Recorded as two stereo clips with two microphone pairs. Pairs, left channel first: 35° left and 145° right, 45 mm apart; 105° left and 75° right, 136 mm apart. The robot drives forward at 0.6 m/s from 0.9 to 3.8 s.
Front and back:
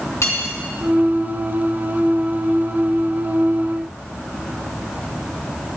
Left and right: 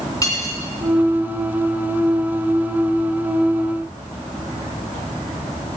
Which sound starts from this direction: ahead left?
Cutlery clinking, at 0.2 s.